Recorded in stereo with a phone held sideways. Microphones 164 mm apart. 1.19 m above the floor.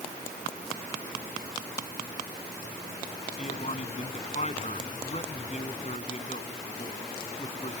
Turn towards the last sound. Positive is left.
turn(degrees=45)  # may be behind; listen again after turning